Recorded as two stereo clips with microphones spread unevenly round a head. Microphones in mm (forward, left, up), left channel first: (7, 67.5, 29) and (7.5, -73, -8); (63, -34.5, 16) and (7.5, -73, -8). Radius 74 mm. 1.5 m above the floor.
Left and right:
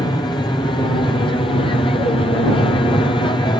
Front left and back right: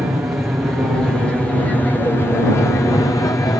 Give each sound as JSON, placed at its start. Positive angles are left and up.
{"t": 0.0, "sound": "an aircraft", "azimuth_deg": 155}